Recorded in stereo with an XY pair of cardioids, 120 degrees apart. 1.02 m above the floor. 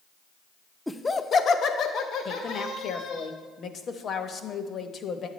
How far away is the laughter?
About 0.5 m.